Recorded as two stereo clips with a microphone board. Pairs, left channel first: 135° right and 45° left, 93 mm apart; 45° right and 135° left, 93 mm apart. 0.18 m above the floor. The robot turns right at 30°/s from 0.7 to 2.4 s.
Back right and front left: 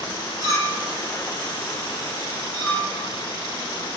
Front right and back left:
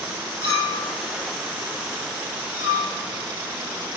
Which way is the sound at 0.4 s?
10° left.